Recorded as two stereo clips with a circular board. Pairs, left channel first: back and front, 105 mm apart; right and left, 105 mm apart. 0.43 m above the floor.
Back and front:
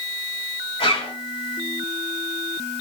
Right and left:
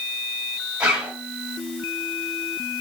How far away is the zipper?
About 3 m.